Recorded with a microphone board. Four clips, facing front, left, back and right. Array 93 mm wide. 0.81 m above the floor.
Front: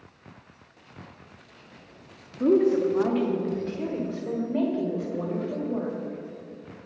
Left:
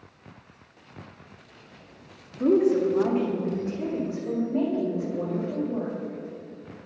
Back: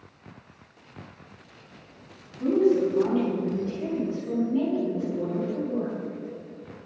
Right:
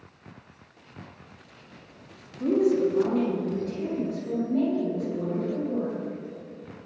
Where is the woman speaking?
35° left, 1.8 m; by 5.9 s 15° left, 5 m.